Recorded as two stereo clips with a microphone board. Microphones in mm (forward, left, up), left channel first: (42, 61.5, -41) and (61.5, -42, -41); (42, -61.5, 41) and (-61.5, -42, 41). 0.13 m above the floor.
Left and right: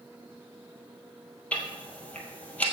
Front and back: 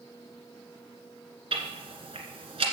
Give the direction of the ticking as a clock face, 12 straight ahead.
6 o'clock.